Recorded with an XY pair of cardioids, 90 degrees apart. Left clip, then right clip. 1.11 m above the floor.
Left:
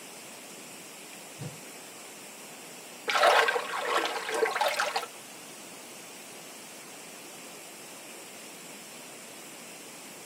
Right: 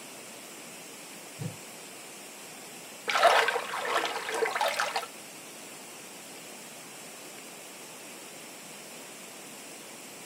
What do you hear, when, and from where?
1.4 s a whoosh: 5° right, 1.7 m
3.1 s a splash: straight ahead, 1.7 m